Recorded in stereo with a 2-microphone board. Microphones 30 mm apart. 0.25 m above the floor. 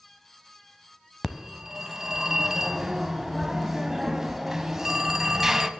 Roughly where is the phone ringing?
Centre.